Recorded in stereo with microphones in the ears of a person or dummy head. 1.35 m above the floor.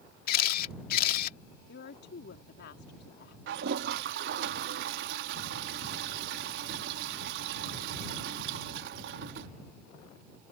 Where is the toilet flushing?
65° right (ahead or behind).